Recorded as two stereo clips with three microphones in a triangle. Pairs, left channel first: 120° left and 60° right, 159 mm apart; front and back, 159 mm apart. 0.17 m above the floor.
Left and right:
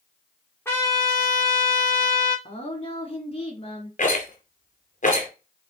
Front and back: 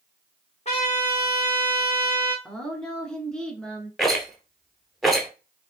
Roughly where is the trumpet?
Ahead left.